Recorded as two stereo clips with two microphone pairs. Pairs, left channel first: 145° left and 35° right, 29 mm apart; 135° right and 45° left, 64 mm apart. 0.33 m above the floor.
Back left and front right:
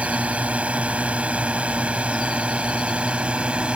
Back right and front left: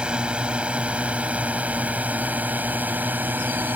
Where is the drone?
25° right; by 3.8 s 5° right.